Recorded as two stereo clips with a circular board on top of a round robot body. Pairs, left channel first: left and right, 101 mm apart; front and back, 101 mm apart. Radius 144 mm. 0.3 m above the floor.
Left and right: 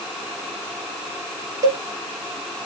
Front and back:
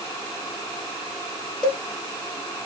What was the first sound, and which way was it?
A cowbell, 75° right.